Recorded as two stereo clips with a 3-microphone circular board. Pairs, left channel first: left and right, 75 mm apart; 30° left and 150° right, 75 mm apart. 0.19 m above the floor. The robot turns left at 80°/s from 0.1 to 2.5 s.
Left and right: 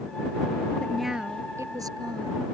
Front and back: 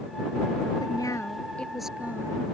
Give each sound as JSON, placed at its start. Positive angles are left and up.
{"t": 0.8, "sound": "a woman speaking", "azimuth_deg": 15}